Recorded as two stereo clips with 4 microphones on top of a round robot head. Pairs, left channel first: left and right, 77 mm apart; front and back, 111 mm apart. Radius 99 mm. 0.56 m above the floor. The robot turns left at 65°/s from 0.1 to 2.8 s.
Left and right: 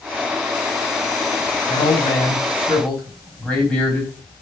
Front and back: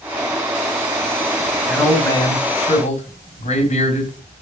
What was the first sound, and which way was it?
A man speaking, 85° left.